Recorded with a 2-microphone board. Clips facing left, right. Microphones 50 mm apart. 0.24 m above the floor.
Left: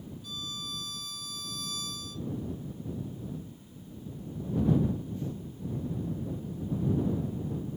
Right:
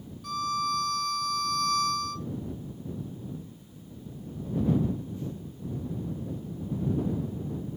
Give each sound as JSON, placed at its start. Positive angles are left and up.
{"t": 0.2, "sound": "a violin", "side_deg": -65}